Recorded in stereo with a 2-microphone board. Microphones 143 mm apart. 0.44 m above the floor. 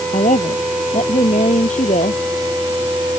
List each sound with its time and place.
0.1 s a woman speaking: 55° left (ahead or behind)